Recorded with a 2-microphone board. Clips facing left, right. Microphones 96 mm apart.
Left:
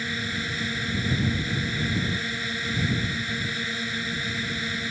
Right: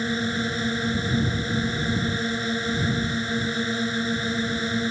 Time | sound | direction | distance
0.0 | a drone | 30° right (ahead or behind) | ?